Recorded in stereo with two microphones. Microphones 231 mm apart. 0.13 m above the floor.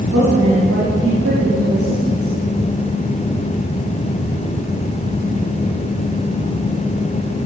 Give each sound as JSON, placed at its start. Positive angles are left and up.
{"t": 0.1, "sound": "a woman speaking", "side_deg": -75, "distance_m": 9.5}